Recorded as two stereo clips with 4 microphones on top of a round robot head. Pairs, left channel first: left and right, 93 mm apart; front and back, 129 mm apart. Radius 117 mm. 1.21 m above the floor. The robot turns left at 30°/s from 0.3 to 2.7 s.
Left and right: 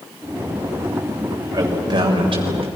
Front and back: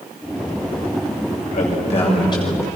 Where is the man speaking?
35° right, 6.5 m; by 2.7 s 70° right, 6.5 m.